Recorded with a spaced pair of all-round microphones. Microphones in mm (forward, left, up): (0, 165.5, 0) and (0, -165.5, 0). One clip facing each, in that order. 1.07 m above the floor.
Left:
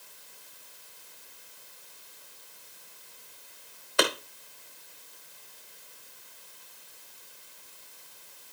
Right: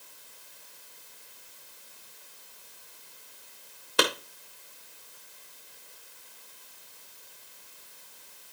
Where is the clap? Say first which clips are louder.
Even; 45° right (ahead or behind), 1.6 m.